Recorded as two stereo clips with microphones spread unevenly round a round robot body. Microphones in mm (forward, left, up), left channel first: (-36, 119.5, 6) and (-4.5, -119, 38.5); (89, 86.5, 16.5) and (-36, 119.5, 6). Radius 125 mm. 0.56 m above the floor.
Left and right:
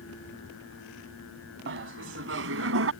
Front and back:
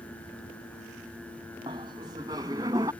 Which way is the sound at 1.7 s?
125° right.